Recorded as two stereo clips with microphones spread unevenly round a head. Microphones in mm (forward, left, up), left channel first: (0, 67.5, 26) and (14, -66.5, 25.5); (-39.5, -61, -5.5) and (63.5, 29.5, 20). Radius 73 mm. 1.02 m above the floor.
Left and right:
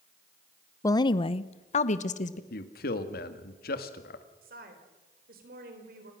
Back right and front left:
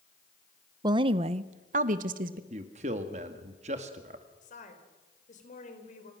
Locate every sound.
0.8 s a woman speaking: 85° left, 0.6 m; by 2.4 s 75° left, 1.3 m
2.5 s a man speaking: 90° left, 1.9 m
4.4 s a woman speaking: 105° right, 4 m